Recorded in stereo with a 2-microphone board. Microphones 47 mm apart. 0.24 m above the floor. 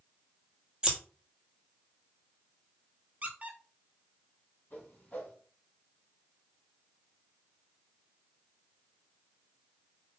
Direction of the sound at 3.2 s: 35° right (ahead or behind).